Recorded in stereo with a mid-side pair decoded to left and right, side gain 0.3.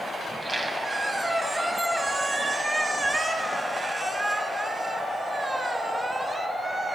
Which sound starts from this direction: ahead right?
A squeak, at 0.3 s.